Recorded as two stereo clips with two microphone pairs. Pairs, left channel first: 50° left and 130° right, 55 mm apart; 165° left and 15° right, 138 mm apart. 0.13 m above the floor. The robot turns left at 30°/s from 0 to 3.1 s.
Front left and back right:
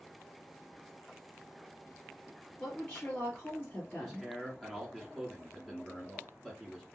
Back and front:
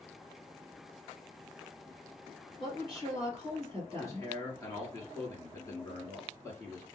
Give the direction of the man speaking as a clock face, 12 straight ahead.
7 o'clock.